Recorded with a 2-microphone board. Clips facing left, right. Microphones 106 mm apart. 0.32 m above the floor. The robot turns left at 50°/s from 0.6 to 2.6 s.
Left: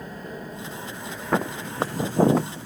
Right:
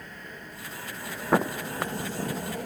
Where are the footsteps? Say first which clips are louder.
Right 1 dB; 5° right (ahead or behind); by 2.7 s 70° left (ahead or behind).